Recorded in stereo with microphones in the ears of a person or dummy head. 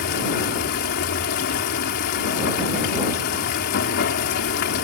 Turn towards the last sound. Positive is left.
turn(degrees=60)  # may be behind; listen again after turning